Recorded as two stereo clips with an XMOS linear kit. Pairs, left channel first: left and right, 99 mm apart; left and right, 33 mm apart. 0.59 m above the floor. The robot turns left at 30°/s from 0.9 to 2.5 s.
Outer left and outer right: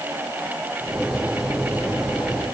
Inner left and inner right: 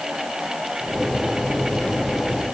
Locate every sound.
Only background noise.